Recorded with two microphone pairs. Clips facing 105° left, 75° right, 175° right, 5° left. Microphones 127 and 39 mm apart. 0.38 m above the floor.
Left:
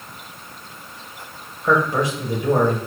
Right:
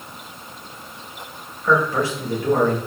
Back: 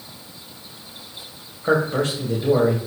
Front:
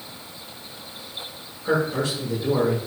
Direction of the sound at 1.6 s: 175° left.